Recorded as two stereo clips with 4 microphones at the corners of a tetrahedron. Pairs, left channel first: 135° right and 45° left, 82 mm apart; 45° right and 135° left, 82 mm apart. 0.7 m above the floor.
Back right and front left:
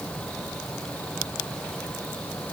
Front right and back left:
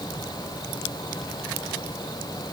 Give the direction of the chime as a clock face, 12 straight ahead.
No chime in this recording.